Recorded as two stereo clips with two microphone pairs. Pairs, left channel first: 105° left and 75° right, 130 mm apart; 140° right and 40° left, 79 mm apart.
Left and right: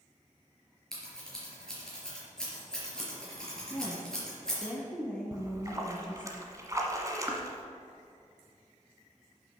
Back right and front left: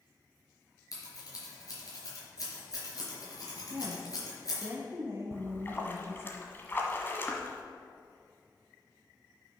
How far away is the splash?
About 1.2 m.